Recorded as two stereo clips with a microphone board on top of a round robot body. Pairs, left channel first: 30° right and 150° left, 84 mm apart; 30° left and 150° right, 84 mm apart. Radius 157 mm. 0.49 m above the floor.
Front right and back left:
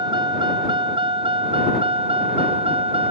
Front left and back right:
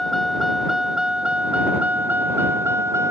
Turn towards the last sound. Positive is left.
turn(degrees=150)